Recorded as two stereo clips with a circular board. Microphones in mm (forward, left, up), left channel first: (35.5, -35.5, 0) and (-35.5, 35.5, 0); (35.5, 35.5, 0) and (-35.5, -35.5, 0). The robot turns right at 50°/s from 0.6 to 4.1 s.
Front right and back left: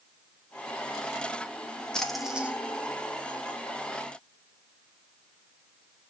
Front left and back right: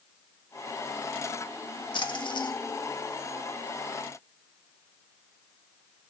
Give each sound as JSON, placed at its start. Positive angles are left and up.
{"t": 1.9, "sound": "a splash", "azimuth_deg": 35, "distance_m": 1.1}